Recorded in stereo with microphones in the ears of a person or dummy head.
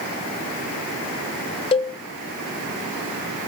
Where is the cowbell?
30° left (ahead or behind), 1.1 m.